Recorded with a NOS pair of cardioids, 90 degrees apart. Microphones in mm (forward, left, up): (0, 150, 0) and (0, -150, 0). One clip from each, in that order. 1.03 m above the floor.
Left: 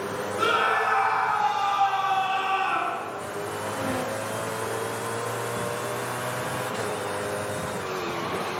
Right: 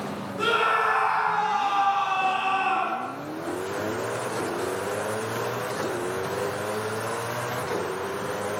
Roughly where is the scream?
Ahead.